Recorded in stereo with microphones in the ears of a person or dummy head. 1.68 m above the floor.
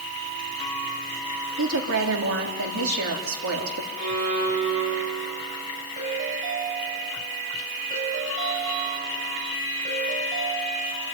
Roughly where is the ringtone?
Right.